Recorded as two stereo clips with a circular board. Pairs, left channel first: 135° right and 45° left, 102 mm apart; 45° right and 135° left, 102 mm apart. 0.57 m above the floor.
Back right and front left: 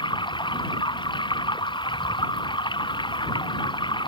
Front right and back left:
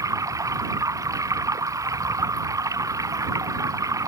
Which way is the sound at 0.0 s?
170° right.